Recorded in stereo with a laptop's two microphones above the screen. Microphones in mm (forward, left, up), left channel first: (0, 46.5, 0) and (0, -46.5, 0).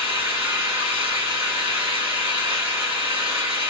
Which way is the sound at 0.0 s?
75° right (ahead or behind).